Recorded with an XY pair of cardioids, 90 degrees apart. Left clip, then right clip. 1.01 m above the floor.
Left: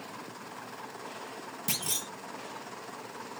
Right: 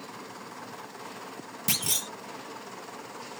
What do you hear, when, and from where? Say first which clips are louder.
1.7 s a clunk: right 5 dB; 30° right, 0.6 m